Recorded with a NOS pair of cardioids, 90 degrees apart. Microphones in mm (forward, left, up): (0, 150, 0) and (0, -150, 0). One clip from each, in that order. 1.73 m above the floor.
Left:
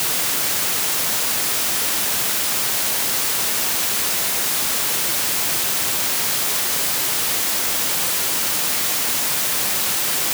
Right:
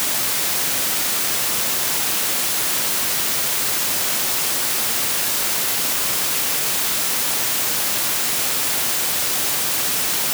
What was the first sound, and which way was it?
Only background noise.